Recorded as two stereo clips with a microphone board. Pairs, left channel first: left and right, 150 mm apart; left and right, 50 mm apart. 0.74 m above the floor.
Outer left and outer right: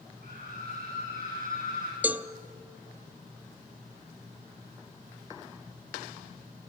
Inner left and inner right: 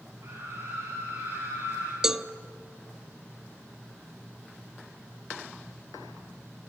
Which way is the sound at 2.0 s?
10° right (ahead or behind).